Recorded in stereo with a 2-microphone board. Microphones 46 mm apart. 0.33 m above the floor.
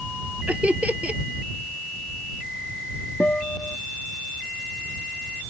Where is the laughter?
30° right (ahead or behind).